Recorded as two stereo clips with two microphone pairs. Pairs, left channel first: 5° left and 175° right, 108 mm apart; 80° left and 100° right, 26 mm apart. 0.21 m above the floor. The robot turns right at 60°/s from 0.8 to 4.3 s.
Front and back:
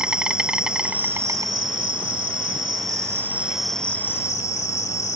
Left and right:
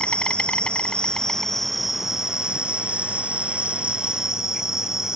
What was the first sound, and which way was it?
An insect, 105° left.